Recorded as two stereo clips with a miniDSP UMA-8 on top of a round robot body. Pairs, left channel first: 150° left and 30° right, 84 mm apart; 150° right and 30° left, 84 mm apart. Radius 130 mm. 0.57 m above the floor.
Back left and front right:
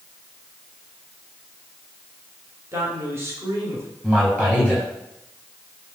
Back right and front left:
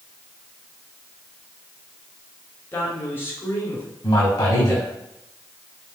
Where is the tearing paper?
I don't hear tearing paper.